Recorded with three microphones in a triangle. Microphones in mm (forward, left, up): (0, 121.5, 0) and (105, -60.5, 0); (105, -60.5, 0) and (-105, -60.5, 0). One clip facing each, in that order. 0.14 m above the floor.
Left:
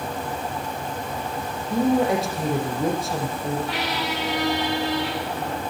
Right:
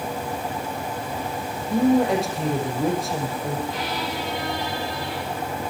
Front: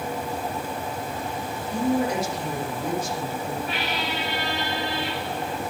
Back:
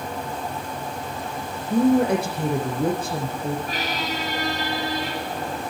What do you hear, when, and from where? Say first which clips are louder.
1.7 s a woman speaking: right 2 dB, back 6 dB; 150° right, 6.5 m
3.7 s a squeak: left 1 dB, back 1 dB; 130° left, 5 m